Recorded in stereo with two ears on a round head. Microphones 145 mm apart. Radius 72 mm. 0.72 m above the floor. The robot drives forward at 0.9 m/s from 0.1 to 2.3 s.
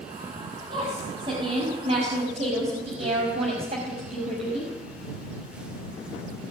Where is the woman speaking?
35° right (ahead or behind), 6.5 m; by 4.7 s 40° right (ahead or behind), 5.5 m.